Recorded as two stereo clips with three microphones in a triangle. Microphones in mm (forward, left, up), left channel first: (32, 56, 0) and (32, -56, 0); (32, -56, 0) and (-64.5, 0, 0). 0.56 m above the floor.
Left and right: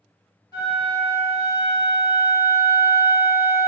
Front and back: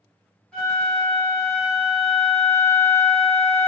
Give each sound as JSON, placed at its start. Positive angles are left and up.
{"t": 0.5, "sound": "a flute", "azimuth_deg": 45, "distance_m": 1.6}